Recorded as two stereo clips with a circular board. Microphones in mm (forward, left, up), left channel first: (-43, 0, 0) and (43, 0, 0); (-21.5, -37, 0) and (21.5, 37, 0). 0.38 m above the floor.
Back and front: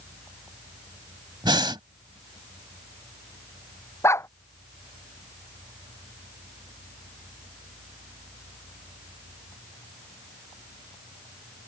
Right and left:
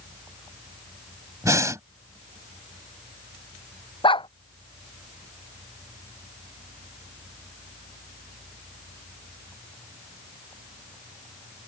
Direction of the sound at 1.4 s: 15° left.